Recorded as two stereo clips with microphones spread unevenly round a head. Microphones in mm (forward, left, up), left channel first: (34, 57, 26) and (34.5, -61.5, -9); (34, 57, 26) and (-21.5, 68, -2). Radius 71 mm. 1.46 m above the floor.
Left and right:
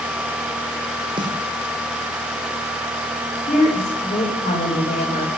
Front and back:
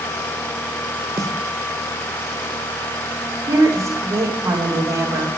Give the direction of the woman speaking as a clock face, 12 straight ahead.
8 o'clock.